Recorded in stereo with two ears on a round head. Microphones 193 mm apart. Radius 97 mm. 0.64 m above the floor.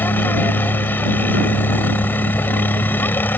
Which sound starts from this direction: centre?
A helicopter, at 0.0 s.